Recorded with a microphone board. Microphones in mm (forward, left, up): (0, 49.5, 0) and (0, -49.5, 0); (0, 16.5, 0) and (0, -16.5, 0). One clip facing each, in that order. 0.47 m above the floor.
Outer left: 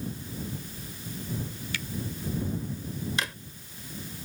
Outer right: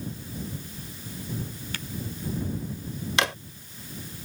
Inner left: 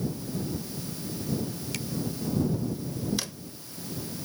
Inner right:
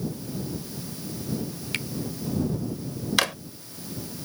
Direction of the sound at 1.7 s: 40° right (ahead or behind).